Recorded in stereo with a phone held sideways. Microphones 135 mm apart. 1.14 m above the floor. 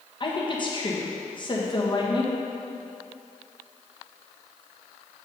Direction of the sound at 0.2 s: 35° left (ahead or behind).